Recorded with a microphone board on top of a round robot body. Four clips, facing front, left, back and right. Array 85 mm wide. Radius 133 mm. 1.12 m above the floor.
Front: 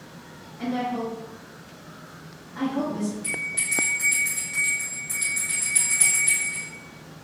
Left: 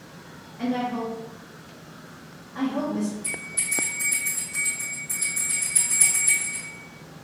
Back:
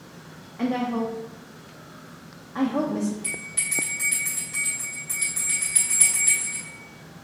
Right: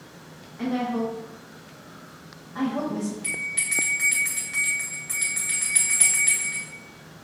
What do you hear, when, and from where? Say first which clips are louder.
0.6 s a woman speaking: right 1 dB, back 2 dB; 175° right, 0.8 m
3.2 s a bell: right 2 dB, front 3 dB; 95° right, 2.0 m